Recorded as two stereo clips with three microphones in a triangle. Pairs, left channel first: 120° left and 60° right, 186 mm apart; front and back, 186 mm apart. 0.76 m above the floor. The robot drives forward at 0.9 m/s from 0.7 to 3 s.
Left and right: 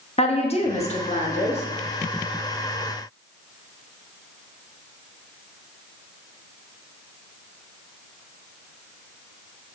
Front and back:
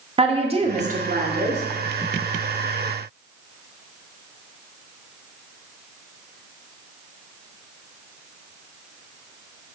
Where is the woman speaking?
150° left, 0.6 m; by 1.6 s 170° left, 1.3 m.